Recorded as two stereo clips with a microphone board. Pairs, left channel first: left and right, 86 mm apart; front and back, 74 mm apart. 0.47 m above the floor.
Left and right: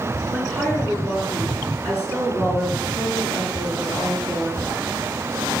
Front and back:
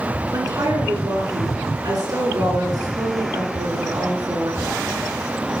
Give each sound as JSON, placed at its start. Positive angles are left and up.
{"t": 0.3, "sound": "a woman speaking", "azimuth_deg": 160, "distance_m": 5.0}